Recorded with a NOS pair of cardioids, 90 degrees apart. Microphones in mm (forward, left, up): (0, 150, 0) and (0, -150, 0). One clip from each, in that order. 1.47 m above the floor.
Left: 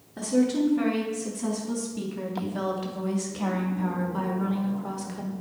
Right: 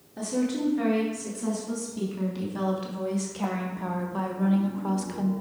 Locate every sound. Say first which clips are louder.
0.2 s a woman speaking: left 4 dB; 20° left, 4 m; by 5.3 s 25° right, 1.6 m